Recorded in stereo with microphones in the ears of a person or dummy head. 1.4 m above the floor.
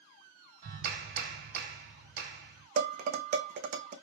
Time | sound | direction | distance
0.6 | a clap | 65° right (ahead or behind) | 2 m
2.8 | dishes clattering | 50° right (ahead or behind) | 0.9 m